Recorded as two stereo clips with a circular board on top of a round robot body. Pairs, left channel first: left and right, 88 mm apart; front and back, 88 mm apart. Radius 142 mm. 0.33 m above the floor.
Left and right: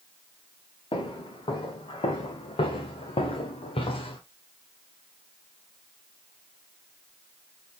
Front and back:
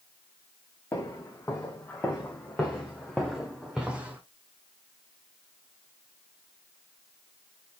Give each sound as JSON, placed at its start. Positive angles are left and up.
{"t": 0.9, "sound": "footsteps", "azimuth_deg": 60, "distance_m": 3.0}